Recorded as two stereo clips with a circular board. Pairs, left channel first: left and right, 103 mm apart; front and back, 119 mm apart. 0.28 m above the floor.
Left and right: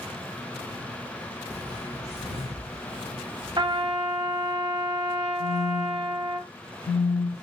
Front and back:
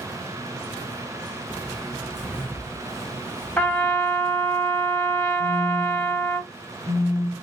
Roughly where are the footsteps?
Left.